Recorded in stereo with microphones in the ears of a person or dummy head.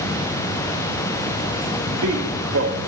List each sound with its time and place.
1.7 s a man speaking: 90° right, 6.5 m